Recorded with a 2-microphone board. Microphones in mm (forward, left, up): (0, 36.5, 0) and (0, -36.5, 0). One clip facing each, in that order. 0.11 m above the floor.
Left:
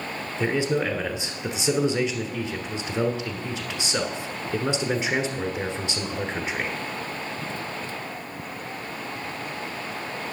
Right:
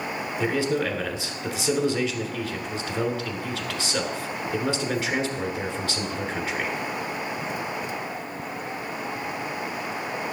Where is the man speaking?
20° left (ahead or behind), 1.1 m.